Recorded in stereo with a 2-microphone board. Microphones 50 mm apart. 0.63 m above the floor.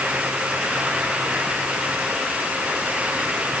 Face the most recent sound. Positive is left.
No sound to turn to.